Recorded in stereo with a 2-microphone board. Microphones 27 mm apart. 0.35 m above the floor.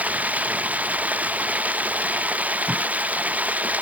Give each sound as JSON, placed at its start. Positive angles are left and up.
{"t": 0.0, "sound": "running water", "side_deg": -75}
{"t": 2.7, "sound": "tape being pulled", "side_deg": -40}